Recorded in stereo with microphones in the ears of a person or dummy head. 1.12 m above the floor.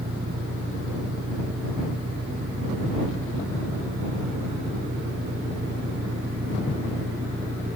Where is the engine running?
40° right (ahead or behind).